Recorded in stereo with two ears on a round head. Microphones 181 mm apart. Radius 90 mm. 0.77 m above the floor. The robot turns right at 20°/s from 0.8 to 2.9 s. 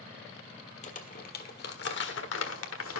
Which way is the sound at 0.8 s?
40° left (ahead or behind).